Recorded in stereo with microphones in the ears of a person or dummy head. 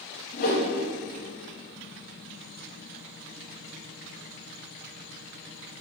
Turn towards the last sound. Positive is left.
turn(degrees=55)  # may be behind; listen again after turning